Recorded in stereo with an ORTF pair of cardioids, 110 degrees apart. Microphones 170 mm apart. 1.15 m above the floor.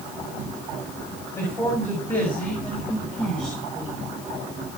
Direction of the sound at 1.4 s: 15° left.